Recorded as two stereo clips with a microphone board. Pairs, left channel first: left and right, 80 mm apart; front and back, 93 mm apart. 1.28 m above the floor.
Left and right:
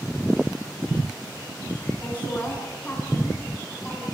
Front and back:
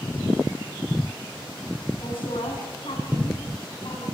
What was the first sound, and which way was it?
A woman speaking, 20° left.